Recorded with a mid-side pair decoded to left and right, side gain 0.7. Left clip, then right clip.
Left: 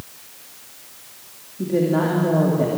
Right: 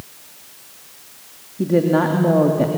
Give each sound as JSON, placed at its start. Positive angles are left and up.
{"t": 1.6, "sound": "a woman speaking", "azimuth_deg": -30, "distance_m": 3.0}